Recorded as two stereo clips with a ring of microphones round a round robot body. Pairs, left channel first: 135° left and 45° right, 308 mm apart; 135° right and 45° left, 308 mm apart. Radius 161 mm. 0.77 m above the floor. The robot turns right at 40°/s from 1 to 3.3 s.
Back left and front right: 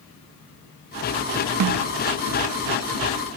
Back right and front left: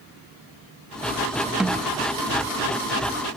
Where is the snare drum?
40° right, 0.5 m; by 1.9 s 30° right, 0.5 m.